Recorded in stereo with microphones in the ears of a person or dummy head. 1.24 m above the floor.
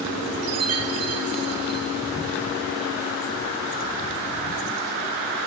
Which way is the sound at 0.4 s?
85° right.